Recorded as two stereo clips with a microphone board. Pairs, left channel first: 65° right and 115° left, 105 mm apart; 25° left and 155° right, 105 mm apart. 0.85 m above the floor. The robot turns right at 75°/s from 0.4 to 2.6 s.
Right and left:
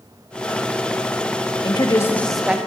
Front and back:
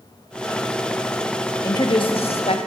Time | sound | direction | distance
1.6 | a woman speaking | 35° right | 1.1 m